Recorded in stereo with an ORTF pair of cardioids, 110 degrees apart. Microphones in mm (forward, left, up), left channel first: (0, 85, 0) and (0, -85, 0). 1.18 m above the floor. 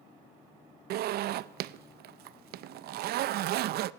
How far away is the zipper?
About 0.7 m.